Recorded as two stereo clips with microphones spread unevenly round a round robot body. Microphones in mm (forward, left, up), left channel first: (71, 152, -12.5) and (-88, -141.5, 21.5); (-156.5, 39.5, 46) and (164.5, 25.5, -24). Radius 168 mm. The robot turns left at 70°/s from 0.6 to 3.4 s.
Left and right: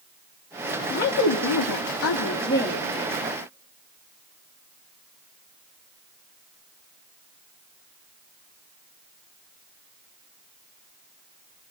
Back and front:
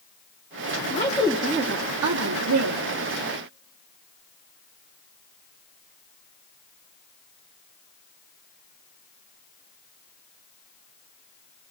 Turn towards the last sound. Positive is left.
turn(degrees=-75)